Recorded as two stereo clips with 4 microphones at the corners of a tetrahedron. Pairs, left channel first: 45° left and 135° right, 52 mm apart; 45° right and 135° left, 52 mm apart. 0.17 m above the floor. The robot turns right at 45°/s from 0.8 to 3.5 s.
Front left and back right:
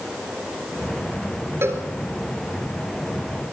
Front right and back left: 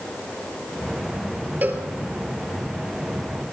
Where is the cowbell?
170° right, 3.5 m; by 1.8 s 160° right, 3.5 m.